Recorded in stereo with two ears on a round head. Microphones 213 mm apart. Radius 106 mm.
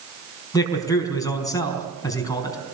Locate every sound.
0.5 s a man speaking: 15° left (ahead or behind), 4.5 m